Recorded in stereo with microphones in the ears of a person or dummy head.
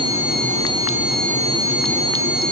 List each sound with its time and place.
Only background noise.